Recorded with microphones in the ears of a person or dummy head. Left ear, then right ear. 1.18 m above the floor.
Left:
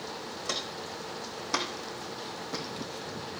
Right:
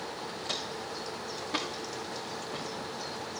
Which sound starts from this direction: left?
Footsteps, at 0.5 s.